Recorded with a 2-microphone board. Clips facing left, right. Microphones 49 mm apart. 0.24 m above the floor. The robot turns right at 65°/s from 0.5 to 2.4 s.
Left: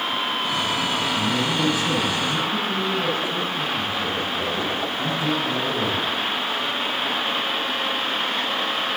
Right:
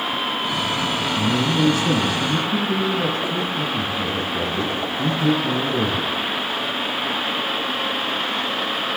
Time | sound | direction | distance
1.2 | a man speaking | 165° right | 4 m